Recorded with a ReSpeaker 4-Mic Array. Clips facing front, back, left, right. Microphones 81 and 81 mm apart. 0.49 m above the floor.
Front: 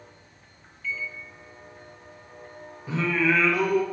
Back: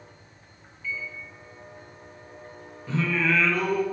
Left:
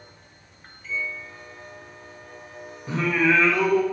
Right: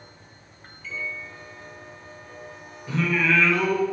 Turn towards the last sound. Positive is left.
turn(degrees=65)